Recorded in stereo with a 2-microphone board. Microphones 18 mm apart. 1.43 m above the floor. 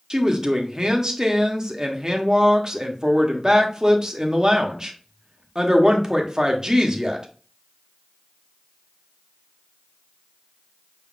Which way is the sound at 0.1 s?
30° right (ahead or behind).